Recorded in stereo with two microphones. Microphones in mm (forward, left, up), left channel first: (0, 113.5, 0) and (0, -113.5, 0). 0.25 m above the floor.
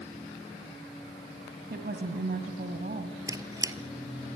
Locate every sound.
1.7 s a woman speaking: 45° right (ahead or behind), 1.5 m
3.3 s a squeak: 15° right (ahead or behind), 0.7 m